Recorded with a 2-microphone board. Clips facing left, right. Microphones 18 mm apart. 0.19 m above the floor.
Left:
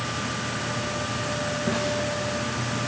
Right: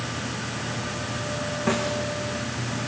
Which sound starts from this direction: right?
A snare drum, at 1.7 s.